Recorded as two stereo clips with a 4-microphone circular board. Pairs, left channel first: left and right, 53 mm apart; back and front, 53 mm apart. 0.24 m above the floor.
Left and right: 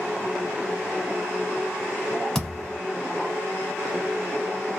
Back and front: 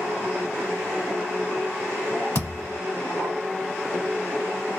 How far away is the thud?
About 1.2 m.